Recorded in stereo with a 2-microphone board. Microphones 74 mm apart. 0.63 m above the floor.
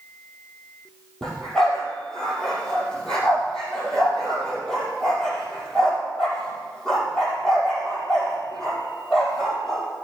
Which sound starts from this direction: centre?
A dog barking, at 1.2 s.